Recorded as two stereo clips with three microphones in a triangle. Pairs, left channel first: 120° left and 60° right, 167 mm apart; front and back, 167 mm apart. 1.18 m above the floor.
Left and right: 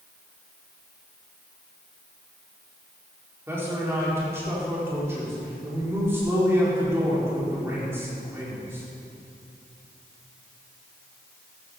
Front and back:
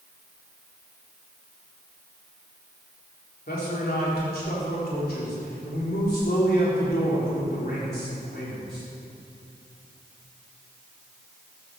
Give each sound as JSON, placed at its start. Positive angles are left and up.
{"t": 3.5, "sound": "a man speaking", "azimuth_deg": 15, "distance_m": 4.0}